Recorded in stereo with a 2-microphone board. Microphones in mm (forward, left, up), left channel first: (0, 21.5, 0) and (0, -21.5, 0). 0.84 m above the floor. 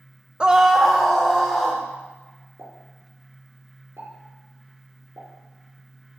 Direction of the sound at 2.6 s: 80° right.